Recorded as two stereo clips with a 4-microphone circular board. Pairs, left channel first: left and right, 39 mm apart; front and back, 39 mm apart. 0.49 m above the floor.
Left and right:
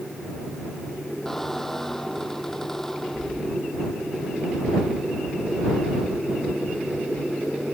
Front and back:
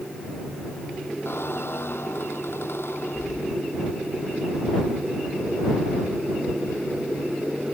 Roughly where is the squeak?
Ahead.